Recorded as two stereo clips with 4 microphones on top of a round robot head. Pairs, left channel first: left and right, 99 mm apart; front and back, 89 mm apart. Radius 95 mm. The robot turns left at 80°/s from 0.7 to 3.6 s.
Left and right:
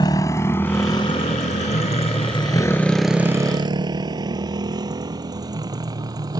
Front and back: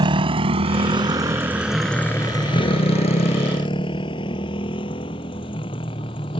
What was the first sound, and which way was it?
A motorcycle, 150° left.